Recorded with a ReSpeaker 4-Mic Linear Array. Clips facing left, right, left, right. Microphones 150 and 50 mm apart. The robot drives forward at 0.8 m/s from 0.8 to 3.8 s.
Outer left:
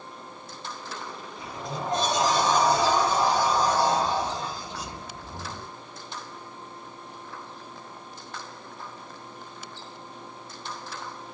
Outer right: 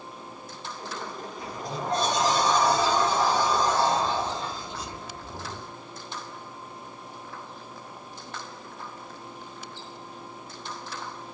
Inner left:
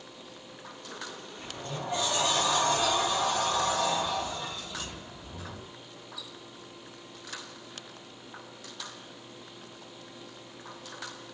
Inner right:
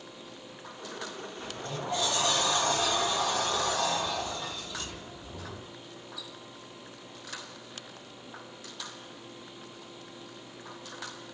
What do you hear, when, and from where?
1.4 s a sliding door: 25° left (ahead or behind), 4 m; by 5.7 s 15° left (ahead or behind), 5.5 m